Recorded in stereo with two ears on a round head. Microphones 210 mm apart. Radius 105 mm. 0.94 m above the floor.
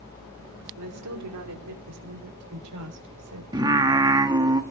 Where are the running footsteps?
No running footsteps in this recording.